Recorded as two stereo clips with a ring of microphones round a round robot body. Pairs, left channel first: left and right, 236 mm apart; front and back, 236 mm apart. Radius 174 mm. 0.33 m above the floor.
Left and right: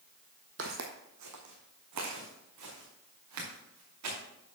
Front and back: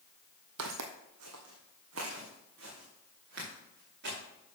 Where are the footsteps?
145° right, 0.7 m; by 4.2 s 120° right, 3.5 m.